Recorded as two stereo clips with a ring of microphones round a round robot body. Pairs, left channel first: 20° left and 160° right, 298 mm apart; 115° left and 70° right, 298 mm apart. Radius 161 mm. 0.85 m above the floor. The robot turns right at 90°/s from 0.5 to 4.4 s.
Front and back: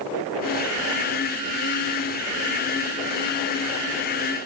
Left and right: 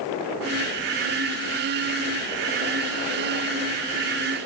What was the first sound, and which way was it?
Only background noise.